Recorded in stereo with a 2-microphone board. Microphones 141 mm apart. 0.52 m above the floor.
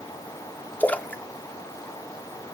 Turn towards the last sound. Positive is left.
turn(degrees=10)  # may be behind; listen again after turning